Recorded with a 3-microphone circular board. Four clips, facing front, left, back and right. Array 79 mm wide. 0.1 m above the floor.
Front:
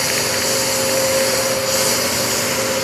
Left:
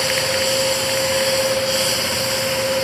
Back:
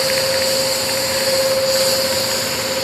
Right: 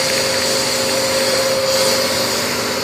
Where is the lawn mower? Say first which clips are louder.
Right 2 dB, back 3 dB; 65° right; by 2.8 s 60° right.